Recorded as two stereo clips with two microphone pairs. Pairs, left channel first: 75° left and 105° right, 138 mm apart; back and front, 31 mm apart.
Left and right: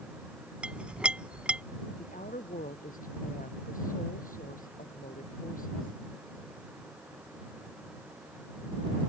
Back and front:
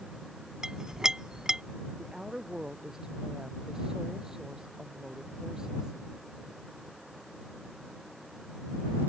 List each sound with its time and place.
0.6 s a clink: 35° right
2.0 s a woman speaking: 70° left